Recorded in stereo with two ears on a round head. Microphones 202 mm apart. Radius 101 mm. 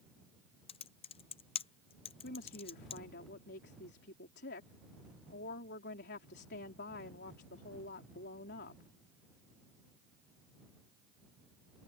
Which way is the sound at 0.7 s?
25° left (ahead or behind).